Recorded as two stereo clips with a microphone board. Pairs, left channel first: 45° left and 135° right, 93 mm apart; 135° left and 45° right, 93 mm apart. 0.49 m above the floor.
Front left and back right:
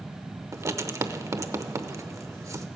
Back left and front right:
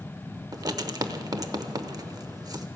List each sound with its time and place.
0.5 s writing: 85° right, 0.7 m